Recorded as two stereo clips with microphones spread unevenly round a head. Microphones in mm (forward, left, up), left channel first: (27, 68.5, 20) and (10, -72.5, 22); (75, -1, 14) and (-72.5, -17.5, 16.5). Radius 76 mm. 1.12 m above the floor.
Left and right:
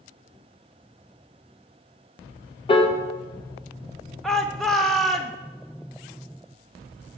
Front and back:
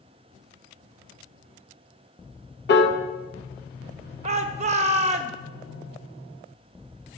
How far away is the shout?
About 0.6 m.